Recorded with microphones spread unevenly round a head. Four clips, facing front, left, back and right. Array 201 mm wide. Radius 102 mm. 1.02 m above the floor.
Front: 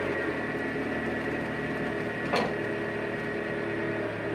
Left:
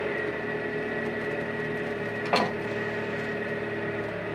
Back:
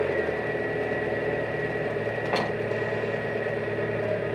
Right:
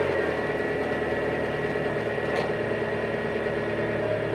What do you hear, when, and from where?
0.0 s an engine running: 120° right, 5 m
2.2 s a door slam: 90° left, 6 m